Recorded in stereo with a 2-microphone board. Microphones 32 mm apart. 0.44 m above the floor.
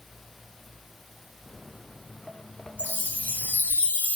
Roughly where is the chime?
Left.